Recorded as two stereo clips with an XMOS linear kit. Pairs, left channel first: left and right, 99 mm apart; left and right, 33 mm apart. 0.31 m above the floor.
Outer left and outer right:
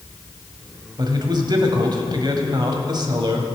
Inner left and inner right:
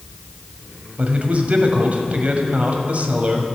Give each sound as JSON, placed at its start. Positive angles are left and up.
{"t": 1.0, "sound": "a man speaking", "side_deg": -50, "distance_m": 1.4}